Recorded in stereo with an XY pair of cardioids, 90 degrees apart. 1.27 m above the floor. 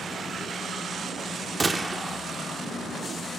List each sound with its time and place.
1.6 s a gunshot: 25° right, 2.5 m